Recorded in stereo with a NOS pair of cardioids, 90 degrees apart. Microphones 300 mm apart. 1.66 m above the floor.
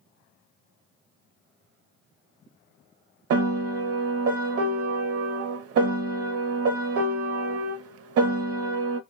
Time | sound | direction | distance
3.3 | a piano | 50° right | 0.6 m